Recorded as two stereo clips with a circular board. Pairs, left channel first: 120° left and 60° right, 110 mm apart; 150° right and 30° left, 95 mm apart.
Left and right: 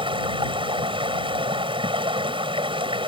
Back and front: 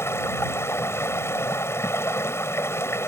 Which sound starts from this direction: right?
Running water, at 0.0 s.